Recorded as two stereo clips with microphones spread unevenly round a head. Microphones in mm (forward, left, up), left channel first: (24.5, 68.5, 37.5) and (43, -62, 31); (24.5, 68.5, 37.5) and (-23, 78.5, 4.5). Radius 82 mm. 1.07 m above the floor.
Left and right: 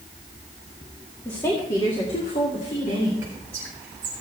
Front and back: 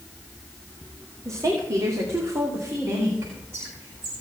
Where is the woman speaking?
175° left, 2.0 m; by 3.1 s 140° left, 3.5 m.